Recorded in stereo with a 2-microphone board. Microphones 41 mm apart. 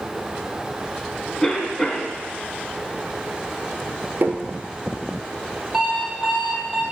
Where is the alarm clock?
Centre (ahead or behind), 2.0 m.